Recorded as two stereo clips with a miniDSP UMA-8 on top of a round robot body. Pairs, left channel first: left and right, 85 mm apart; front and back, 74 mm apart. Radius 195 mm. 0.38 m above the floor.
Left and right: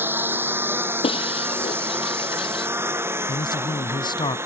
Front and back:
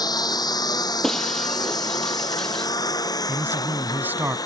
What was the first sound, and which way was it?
A lawn mower, 25° right.